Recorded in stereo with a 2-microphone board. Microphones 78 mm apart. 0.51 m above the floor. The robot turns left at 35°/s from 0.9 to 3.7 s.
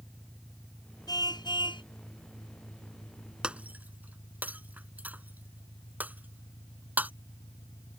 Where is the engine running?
170° left; by 8.0 s 70° left.